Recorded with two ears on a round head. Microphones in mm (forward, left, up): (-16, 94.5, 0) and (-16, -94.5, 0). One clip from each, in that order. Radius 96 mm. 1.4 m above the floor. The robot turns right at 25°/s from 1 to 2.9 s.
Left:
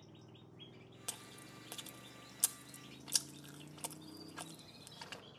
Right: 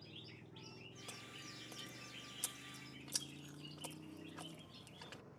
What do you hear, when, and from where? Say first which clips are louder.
0.0 s a motorcycle: right 4 dB; 15° left; by 5.4 s 65° left
1.1 s chewing: left 3 dB; 55° left (ahead or behind); by 5.2 s 30° left (ahead or behind)